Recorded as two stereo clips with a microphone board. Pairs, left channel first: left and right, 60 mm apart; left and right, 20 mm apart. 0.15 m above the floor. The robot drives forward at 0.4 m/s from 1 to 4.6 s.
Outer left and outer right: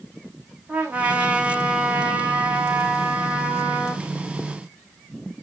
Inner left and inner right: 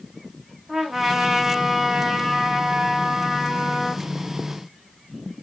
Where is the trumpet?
25° right (ahead or behind), 3.5 m; by 4.0 s 40° right (ahead or behind), 2.5 m.